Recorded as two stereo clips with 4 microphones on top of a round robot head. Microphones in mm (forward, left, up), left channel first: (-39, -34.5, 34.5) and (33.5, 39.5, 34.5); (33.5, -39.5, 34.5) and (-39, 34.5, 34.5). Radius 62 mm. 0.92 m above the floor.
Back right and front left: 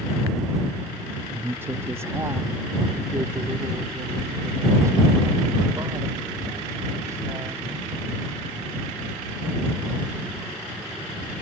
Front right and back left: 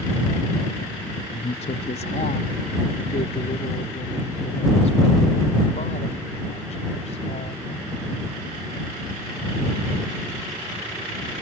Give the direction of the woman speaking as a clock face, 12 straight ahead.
1 o'clock.